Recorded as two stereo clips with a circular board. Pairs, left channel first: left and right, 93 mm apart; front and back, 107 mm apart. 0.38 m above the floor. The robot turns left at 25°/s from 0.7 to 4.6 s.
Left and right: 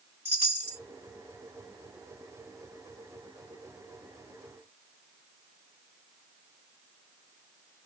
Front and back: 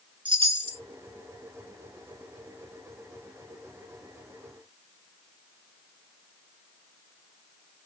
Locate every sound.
0.2 s a chime: 150° right, 1.4 m; by 0.8 s 155° right, 1.4 m